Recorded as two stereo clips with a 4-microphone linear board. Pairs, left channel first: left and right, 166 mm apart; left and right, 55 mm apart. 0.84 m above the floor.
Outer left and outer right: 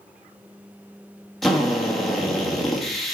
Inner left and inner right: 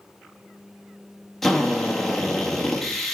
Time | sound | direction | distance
1.4 | a drill | centre (ahead or behind) | 1.6 m